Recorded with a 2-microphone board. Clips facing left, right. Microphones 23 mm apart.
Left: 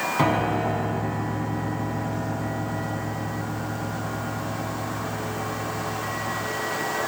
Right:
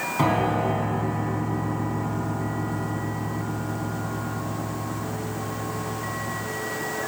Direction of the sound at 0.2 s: 10° left (ahead or behind).